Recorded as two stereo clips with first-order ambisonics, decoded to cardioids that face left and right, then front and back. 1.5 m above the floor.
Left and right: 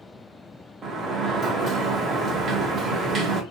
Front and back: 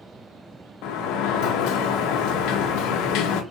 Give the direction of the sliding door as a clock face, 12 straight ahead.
1 o'clock.